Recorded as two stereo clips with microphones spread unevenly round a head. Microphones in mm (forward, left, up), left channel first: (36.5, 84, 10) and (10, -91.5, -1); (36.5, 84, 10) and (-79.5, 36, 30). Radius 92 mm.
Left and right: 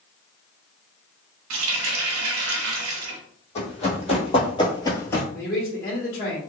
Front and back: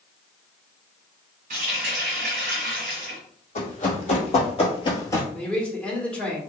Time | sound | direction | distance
1.5 | a running tap | 105° right | 0.7 m
3.5 | running footsteps | 40° left | 1.8 m
5.3 | a man speaking | 90° left | 1.1 m